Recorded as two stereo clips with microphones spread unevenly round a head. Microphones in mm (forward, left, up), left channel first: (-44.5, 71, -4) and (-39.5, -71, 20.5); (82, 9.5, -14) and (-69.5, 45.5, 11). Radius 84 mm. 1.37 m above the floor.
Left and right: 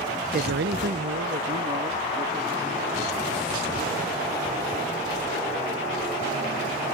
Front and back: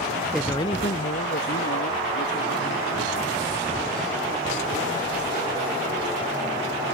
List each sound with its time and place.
0.3 s a man speaking: 110° right; by 3.2 s 35° right